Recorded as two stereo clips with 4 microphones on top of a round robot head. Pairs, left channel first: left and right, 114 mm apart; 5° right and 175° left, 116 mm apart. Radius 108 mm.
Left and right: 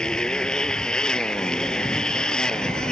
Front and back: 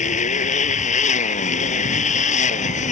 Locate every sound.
0.0 s a motorcycle: 5° left